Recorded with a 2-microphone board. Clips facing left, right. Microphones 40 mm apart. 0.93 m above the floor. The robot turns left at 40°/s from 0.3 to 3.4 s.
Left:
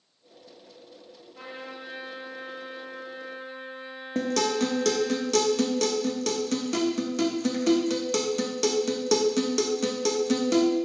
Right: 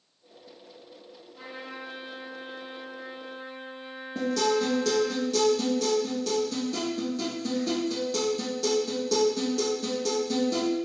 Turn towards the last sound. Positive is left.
turn(degrees=70)  # may be behind; listen again after turning